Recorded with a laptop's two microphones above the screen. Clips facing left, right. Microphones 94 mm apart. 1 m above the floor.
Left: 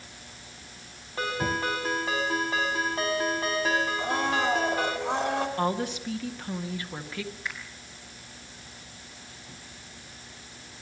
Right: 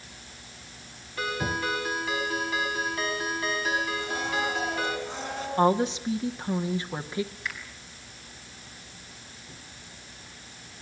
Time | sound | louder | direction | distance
1.2 | a ringtone | left 1 dB | 35° left (ahead or behind) | 4.5 m
4.0 | a blender | left 3 dB | 80° left | 4.5 m
5.6 | a woman speaking | right 5 dB | 20° right (ahead or behind) | 1.8 m
7.5 | a finger snap | even | 20° left (ahead or behind) | 5.5 m